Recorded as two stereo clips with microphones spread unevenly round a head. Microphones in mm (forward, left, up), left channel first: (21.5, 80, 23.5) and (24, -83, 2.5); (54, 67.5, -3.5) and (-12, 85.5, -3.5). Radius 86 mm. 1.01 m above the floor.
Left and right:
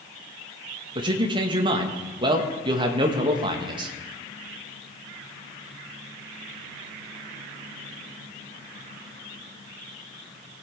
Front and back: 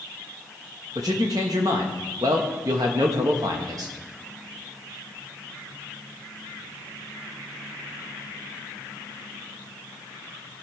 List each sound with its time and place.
0.9 s a man speaking: 145° right, 1.2 m